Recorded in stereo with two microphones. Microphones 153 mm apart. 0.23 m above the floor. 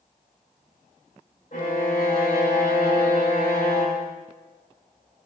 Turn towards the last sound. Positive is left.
turn(degrees=60)  # may be behind; listen again after turning